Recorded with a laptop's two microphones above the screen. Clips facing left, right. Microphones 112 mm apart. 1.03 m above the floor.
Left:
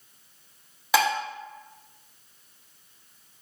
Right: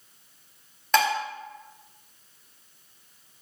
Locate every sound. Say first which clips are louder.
0.9 s dishes clattering: even; 5° left (ahead or behind), 1.2 m